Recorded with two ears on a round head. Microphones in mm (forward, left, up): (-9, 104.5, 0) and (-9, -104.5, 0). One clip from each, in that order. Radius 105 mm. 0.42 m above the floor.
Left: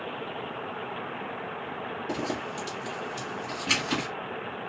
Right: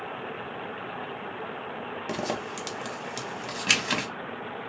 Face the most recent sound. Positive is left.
turn(degrees=-50)  # may be behind; listen again after turning